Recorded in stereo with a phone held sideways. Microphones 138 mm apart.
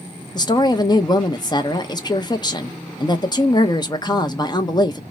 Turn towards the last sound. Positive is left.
turn(degrees=30)  # may be behind; listen again after turning